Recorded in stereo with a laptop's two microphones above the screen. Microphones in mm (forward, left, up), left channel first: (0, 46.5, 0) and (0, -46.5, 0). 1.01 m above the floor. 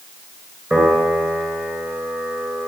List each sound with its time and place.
0.7 s a piano: 20° right (ahead or behind), 6 m